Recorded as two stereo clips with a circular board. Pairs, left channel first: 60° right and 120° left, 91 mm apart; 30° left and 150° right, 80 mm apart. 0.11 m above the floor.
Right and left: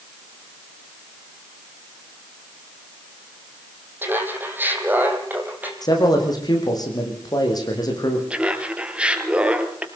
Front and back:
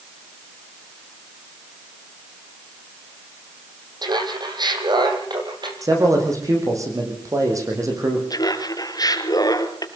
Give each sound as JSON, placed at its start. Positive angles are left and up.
{"t": 4.0, "sound": "laughter", "azimuth_deg": -175, "distance_m": 4.0}
{"t": 5.8, "sound": "a man speaking", "azimuth_deg": -105, "distance_m": 6.5}
{"t": 8.3, "sound": "laughter", "azimuth_deg": 45, "distance_m": 2.5}